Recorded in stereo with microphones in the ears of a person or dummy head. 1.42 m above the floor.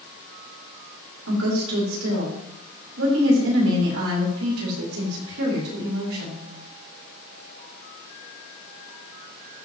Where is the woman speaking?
75° right (ahead or behind), 4 m.